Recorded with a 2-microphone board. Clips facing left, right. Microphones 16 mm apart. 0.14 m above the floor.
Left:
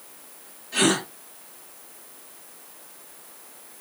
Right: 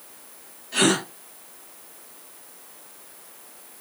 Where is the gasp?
10° right (ahead or behind), 1.9 m.